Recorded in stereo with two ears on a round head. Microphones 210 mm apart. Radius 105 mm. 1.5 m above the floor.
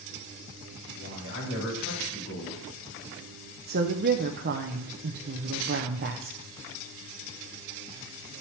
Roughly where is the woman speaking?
Right.